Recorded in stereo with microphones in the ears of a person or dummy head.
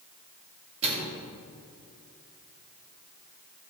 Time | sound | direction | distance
0.8 | a microwave | 35° right (ahead or behind) | 2.5 m